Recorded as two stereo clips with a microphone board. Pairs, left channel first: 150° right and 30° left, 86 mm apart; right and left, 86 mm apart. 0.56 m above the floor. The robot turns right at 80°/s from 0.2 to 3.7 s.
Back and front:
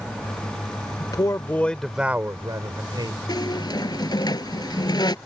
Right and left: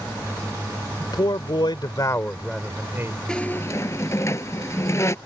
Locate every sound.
1.0 s a man speaking: 130° right; by 3.2 s 45° left
3.3 s a squeak: 170° right; by 5.2 s 140° right